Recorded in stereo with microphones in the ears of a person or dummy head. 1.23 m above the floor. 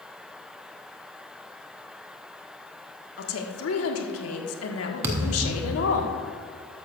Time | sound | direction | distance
3.2 | a woman speaking | 75° left (ahead or behind) | 1.5 m
5.0 | a thud | 20° right (ahead or behind) | 0.6 m